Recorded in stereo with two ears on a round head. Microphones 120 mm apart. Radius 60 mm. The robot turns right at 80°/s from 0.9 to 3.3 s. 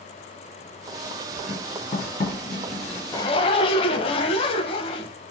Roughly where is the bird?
I don't hear a bird.